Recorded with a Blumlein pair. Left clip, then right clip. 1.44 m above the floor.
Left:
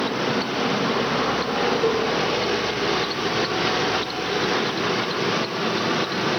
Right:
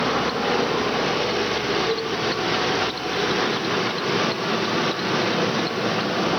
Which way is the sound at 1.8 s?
50° left.